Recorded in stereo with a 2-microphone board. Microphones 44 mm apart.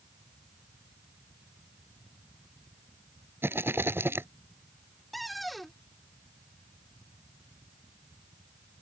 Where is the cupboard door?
Centre (ahead or behind).